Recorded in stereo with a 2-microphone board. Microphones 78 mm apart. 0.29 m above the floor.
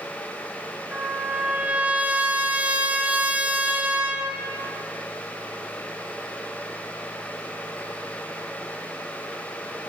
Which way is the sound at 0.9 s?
20° right (ahead or behind).